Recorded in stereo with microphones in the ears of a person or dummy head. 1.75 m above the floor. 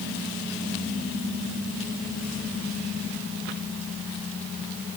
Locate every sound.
Only background noise.